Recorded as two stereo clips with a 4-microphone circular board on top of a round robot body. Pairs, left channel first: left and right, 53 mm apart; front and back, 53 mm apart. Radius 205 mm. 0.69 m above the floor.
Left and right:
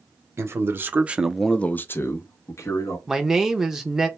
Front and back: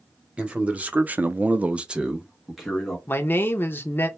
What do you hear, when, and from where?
0.4 s a man speaking: 115° right, 0.9 m; by 3.0 s 90° left, 1.2 m
3.1 s a man speaking: 15° right, 0.6 m